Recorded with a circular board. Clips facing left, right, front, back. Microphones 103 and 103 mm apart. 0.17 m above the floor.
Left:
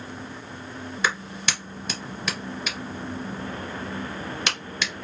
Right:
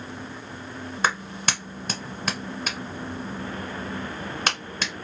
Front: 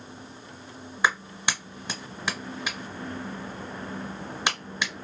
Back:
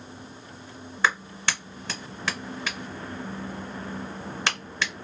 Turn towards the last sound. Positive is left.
turn(degrees=-70)